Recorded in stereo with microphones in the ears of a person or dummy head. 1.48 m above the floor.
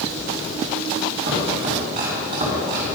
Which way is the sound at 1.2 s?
40° right (ahead or behind).